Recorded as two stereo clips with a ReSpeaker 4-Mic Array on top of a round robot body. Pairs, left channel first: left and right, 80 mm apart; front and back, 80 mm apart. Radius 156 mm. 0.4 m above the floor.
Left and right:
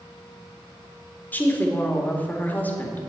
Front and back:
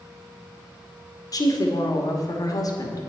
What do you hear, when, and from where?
1.3 s a woman speaking: 25° left, 2 m